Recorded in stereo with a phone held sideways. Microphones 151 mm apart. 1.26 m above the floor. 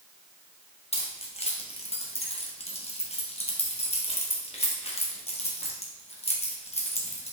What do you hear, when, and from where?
0.9 s keys jangling: 45° left (ahead or behind), 0.8 m